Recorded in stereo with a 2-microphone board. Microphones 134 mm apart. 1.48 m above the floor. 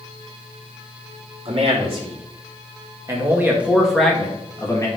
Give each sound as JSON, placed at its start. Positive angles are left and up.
{"t": 1.4, "sound": "a man speaking", "side_deg": -50, "distance_m": 3.0}